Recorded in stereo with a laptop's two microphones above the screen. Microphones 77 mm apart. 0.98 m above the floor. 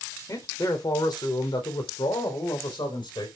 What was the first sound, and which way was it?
A man speaking, 45° left (ahead or behind).